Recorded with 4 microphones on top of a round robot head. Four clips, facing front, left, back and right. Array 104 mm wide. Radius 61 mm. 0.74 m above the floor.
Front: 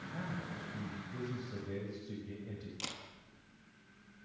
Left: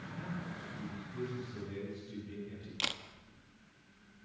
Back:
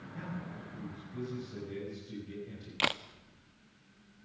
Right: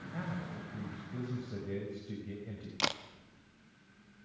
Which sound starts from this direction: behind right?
A camera shutter, at 2.8 s.